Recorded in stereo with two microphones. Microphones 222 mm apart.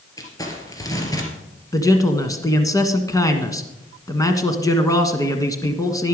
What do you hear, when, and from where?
0.2 s crumpling: 15° left (ahead or behind), 2.5 m
1.7 s a man speaking: 15° left (ahead or behind), 1.4 m